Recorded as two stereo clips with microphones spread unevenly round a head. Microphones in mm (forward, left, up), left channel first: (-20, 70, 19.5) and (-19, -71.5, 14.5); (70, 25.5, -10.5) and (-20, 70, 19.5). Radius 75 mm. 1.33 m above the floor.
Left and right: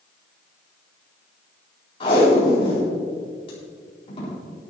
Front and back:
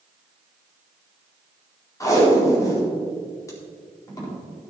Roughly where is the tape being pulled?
Ahead left.